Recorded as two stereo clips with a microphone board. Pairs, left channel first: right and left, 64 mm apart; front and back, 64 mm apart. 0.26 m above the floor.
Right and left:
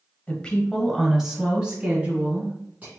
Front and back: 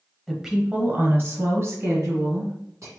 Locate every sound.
0.3 s a woman speaking: 90° right, 0.9 m; by 2.9 s 150° left, 2 m